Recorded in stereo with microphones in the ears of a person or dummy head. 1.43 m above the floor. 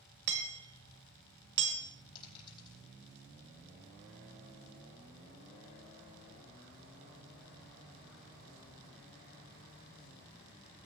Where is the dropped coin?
30° left (ahead or behind), 4.5 m.